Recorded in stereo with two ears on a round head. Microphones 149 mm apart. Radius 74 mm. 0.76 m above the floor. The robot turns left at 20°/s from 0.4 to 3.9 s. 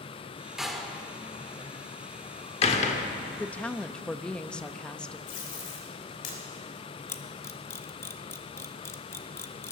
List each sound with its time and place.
0.6 s a door slam: centre (ahead or behind), 1.1 m; by 3.1 s 50° left (ahead or behind), 1.1 m
3.4 s a woman speaking: 10° left (ahead or behind), 0.5 m; by 5.2 s 5° left (ahead or behind), 0.5 m
5.3 s tape being pulled: 60° left (ahead or behind), 3.5 m
7.1 s a camera shutter: 15° left (ahead or behind), 0.8 m